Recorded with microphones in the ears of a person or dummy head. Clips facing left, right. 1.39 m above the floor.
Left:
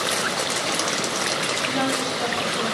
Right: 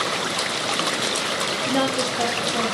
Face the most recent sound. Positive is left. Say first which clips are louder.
# right 3 dB
turn(degrees=-85)